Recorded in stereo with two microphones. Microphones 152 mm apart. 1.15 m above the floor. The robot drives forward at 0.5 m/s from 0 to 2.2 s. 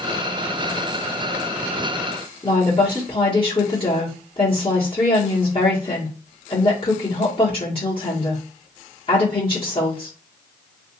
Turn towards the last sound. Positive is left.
turn(degrees=35)  # may be behind; listen again after turning